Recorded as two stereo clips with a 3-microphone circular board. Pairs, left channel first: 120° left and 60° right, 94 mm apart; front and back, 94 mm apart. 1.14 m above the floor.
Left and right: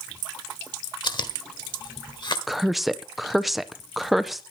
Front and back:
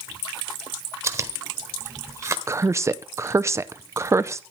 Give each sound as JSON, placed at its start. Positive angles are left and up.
{"t": 1.0, "sound": "chewing", "azimuth_deg": 130, "distance_m": 1.2}
{"t": 2.5, "sound": "a woman speaking", "azimuth_deg": -145, "distance_m": 0.5}